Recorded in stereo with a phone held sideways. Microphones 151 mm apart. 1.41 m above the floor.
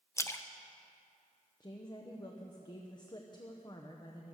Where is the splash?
20° left (ahead or behind), 0.7 m.